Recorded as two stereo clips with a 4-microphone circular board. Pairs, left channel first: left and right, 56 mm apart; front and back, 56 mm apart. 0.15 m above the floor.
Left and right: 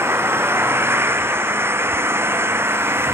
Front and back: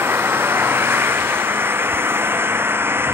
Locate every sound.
0.0 s an engine running: 130° right